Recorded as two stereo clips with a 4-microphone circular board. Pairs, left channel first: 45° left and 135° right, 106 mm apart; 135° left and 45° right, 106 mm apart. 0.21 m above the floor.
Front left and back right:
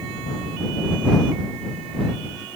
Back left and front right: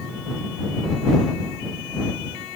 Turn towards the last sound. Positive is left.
No sound to turn to.